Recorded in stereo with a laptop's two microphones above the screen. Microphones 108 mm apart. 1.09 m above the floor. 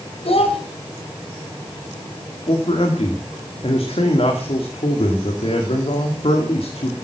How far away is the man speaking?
About 2.5 m.